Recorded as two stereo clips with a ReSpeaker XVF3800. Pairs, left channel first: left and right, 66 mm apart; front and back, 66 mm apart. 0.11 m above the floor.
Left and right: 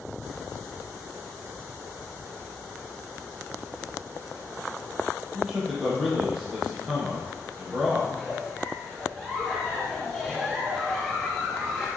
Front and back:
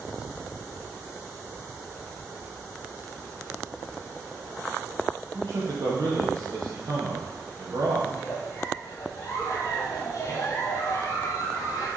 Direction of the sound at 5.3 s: 175° right.